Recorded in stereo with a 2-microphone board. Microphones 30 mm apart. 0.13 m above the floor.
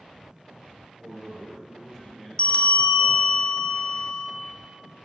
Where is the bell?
40° left (ahead or behind), 0.7 m.